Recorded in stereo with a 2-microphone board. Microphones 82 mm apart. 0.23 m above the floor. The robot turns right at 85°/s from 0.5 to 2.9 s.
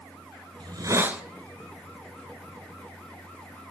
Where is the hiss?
65° right, 0.6 m; by 1.2 s 10° right, 0.6 m.